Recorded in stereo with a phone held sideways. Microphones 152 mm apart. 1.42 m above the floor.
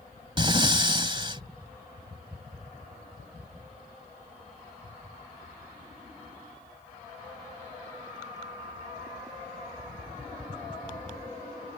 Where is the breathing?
35° right (ahead or behind).